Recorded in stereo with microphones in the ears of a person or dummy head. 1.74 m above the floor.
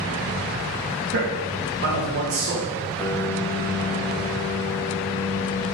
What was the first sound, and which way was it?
A man speaking, 55° right (ahead or behind).